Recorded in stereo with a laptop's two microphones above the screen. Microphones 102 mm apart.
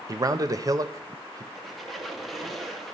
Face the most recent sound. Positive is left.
turn(degrees=0)  # may be behind; listen again after turning